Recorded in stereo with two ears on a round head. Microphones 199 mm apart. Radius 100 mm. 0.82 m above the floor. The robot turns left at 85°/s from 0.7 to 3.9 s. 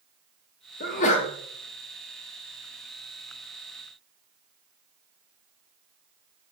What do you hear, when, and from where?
0.8 s a sneeze: 85° left, 0.5 m; by 1.3 s 45° left, 0.5 m